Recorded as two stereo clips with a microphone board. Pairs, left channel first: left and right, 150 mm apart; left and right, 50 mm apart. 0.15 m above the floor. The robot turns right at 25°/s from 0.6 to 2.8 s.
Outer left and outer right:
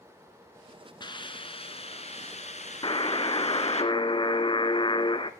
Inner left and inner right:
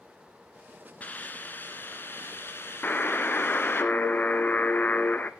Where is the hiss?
40° left, 2 m; by 3.8 s 85° left, 2 m.